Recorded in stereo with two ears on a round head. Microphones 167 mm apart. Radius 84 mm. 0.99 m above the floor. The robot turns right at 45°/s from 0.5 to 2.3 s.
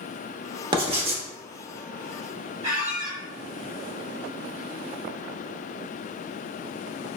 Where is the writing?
30° right (ahead or behind), 0.7 m; by 1.2 s 40° right (ahead or behind), 0.7 m.